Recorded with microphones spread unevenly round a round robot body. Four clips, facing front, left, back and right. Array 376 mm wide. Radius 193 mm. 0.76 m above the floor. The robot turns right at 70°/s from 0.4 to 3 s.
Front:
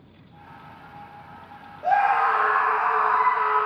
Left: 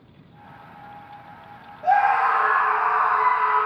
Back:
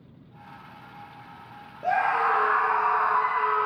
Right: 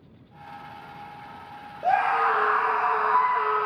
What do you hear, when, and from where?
1.8 s a scream: 145° right, 1.1 m; by 3.7 s 65° right, 1.1 m